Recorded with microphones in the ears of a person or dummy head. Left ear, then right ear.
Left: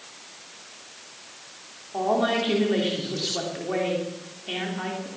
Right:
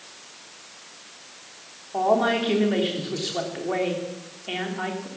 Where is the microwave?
I don't hear a microwave.